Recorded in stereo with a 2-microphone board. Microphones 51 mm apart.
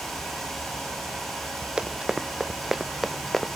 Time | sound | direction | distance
1.8 | running footsteps | 15° right (ahead or behind) | ?